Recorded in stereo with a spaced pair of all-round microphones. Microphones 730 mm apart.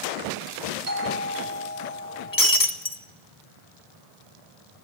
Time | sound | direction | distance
0.9 | a doorbell | 85° right | 4 m
2.3 | breaking glass | 25° left (ahead or behind) | 1.5 m